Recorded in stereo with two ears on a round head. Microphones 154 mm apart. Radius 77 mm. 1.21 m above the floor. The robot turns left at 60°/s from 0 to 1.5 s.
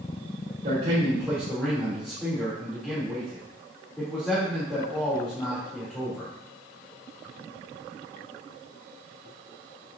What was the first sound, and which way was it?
A man speaking, 135° right.